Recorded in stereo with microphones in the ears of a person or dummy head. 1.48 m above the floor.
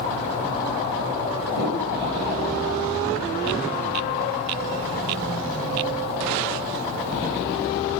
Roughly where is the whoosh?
Right.